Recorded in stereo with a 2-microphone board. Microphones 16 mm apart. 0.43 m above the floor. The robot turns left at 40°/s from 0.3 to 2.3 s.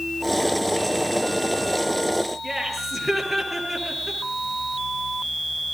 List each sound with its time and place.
2.4 s laughter: 5° left (ahead or behind), 7 m